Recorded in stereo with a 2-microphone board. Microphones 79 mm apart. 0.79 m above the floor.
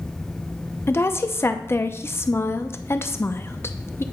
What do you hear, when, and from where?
0.9 s a woman speaking: 30° left (ahead or behind), 0.6 m